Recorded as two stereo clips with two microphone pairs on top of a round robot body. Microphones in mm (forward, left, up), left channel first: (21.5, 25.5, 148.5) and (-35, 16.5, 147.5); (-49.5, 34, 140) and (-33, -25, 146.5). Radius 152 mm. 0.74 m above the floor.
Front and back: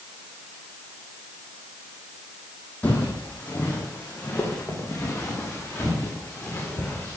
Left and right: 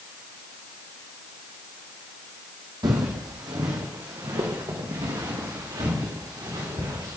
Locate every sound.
2.8 s footsteps: 60° right, 1.5 m